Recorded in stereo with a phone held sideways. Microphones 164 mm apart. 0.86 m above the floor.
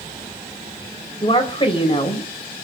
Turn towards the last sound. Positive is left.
turn(degrees=35)  # may be behind; listen again after turning